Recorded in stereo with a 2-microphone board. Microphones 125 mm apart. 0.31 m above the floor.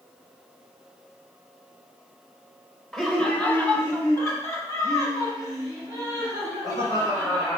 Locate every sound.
2.9 s laughter: 5° left (ahead or behind), 1.3 m; by 7.6 s 35° left (ahead or behind), 5 m